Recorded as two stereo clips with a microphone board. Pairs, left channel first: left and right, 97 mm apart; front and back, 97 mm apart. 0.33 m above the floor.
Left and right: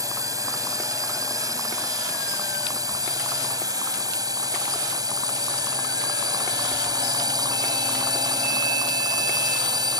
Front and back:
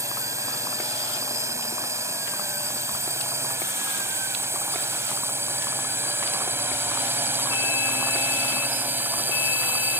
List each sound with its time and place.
0.0 s a drone: 130° right; by 10.0 s 115° right